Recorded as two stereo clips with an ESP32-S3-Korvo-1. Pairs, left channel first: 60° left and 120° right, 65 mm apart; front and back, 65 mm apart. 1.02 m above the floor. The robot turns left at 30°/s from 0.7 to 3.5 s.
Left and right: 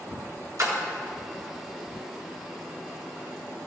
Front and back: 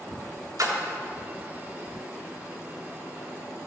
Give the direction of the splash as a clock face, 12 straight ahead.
5 o'clock.